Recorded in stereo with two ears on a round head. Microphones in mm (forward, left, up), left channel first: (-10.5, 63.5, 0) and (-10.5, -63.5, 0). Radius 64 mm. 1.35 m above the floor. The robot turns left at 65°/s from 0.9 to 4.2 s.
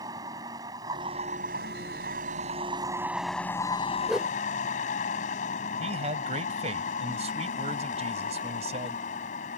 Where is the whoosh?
Centre (ahead or behind); by 4.4 s 10° right (ahead or behind).